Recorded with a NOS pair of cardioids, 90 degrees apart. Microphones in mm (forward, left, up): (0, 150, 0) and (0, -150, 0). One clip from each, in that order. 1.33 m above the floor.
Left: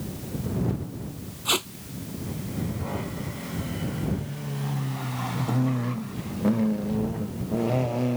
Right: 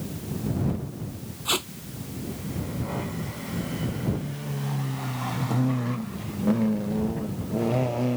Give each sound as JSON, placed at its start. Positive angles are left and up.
{"t": 1.4, "sound": "tape being pulled", "azimuth_deg": 15}